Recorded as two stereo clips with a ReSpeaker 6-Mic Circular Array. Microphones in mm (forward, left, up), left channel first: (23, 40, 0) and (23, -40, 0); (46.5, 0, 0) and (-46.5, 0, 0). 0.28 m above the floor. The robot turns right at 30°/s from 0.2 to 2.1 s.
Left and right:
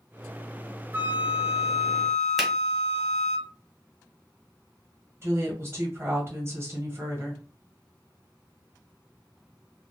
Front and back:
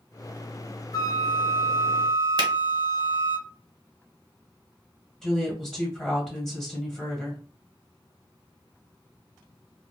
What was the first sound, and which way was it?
A flute, 35° right.